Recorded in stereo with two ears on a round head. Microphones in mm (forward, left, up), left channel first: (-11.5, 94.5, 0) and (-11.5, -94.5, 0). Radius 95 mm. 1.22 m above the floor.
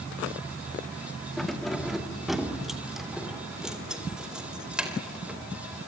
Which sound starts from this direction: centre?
Keys jangling, at 1.4 s.